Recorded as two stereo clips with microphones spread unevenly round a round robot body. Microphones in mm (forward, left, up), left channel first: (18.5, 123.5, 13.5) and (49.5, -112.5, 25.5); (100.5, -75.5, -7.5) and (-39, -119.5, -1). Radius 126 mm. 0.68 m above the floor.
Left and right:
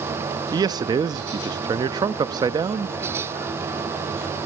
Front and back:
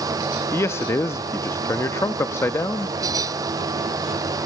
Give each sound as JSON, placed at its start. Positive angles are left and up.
{"t": 0.5, "sound": "a man speaking", "azimuth_deg": -25, "distance_m": 0.5}